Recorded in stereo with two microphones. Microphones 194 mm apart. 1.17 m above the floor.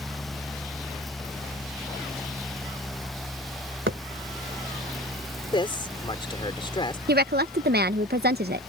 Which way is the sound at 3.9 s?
80° right.